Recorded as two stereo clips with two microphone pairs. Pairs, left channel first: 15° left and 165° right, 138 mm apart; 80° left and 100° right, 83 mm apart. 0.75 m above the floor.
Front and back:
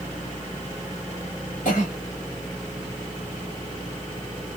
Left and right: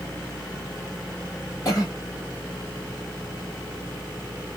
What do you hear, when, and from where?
1.6 s a cough: 30° left, 2 m